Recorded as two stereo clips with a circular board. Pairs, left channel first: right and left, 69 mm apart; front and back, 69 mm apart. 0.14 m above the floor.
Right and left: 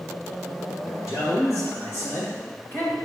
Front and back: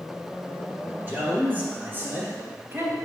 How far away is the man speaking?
About 3.5 m.